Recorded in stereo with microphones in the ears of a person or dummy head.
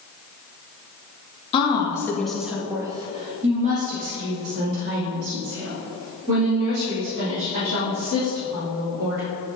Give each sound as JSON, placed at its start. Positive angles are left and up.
{"t": 1.5, "sound": "a woman speaking", "side_deg": 40, "distance_m": 1.7}